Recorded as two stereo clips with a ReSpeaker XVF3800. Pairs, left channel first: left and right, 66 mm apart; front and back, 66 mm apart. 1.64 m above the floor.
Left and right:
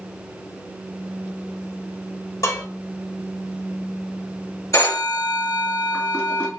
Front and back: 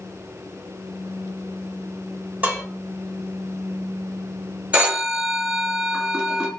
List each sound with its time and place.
2.4 s dishes clattering: 115° left, 3 m
4.7 s a phone ringing: 115° left, 1.9 m